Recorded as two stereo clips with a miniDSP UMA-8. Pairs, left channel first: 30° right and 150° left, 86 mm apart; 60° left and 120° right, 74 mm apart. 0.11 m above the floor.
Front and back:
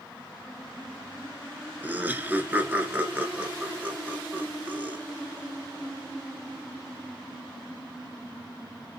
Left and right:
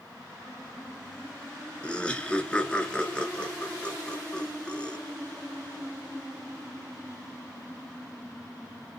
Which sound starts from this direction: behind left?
Laughter, at 1.8 s.